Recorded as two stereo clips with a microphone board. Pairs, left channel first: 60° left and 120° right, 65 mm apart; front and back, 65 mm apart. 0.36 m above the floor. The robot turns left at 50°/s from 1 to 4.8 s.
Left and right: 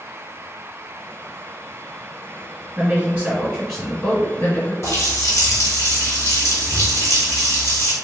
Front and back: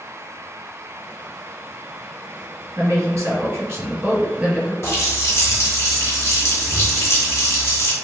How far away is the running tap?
About 1.2 m.